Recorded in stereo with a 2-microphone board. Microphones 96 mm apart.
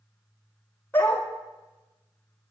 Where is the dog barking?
15° left (ahead or behind), 1.4 m.